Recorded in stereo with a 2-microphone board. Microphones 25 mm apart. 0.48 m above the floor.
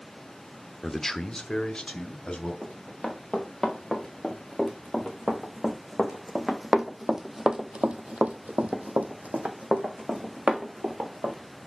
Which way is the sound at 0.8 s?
5° left (ahead or behind).